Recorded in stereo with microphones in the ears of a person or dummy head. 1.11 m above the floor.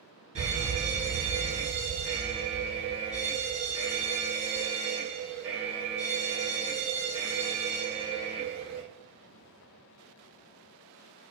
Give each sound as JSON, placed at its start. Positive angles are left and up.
{"t": 0.3, "sound": "a fire alarm", "side_deg": -30, "distance_m": 1.2}